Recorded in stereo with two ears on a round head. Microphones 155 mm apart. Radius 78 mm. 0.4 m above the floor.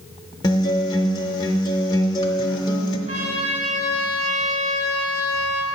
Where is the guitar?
25° left (ahead or behind), 0.8 m.